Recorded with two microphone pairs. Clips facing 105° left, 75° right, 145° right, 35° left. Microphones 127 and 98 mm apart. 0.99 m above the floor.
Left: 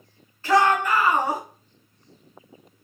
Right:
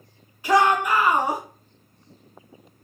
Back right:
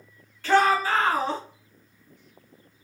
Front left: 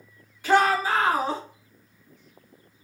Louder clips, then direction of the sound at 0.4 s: Even, even; 10° right.